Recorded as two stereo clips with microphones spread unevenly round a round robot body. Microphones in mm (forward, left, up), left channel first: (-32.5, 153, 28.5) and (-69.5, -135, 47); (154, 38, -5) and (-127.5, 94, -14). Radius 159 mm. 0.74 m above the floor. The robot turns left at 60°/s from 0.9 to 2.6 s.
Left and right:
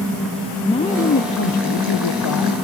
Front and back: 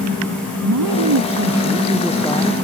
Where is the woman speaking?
155° left; by 2.6 s 50° left.